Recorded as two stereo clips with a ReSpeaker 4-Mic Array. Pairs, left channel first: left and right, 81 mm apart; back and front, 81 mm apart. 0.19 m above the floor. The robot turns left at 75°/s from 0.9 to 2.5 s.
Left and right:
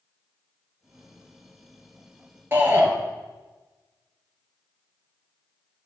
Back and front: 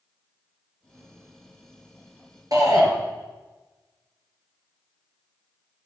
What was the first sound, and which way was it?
A shout, 30° right.